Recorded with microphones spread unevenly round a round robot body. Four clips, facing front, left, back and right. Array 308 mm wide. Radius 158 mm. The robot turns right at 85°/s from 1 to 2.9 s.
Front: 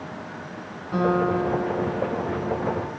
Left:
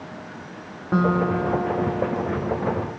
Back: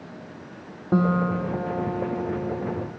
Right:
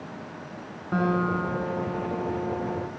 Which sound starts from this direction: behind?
A guitar, at 0.9 s.